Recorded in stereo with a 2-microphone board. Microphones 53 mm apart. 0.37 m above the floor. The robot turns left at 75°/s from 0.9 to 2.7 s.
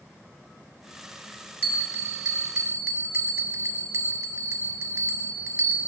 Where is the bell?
45° right, 1.3 m; by 5.9 s 125° right, 1.3 m.